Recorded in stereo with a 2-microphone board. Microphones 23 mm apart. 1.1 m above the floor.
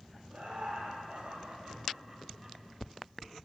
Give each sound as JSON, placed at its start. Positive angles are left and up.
{"t": 0.3, "sound": "laughter", "side_deg": -50, "distance_m": 4.0}